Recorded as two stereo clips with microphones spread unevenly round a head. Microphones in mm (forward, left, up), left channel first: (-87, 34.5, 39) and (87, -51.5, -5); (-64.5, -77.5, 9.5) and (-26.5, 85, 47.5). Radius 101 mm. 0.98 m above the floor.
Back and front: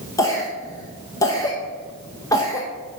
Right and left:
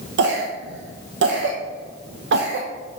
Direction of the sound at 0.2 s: 75° left.